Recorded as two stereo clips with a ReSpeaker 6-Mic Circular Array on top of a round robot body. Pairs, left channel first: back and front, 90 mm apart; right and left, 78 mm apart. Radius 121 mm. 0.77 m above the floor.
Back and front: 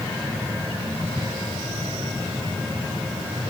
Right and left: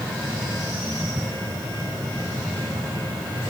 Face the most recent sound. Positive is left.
No sound to turn to.